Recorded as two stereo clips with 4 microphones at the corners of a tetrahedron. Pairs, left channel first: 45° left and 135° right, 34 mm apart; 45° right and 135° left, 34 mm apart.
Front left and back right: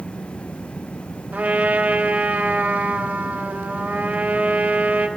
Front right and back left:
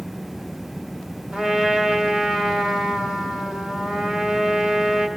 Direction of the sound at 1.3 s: 160° right.